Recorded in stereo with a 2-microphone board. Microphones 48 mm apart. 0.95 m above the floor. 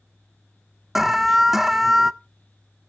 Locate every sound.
0.9 s an alarm: 5° right (ahead or behind), 0.5 m